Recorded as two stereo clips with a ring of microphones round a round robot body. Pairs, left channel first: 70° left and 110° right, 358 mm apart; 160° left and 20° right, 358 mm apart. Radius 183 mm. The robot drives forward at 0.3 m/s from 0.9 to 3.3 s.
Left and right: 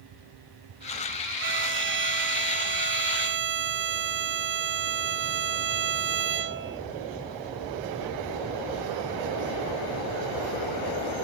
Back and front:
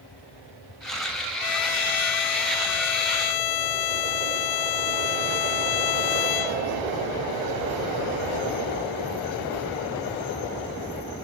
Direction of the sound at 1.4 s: 170° right.